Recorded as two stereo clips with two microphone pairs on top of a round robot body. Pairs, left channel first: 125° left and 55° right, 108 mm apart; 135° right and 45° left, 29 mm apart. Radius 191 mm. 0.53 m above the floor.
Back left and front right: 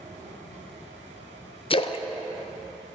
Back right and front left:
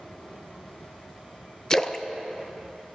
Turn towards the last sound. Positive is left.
turn(degrees=150)